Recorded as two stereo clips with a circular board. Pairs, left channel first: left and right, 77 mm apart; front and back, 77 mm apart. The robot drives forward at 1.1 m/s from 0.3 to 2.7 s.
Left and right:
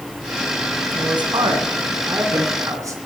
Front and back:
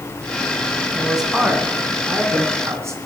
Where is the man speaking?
90° right, 2.5 m; by 3.0 s 130° right, 3 m.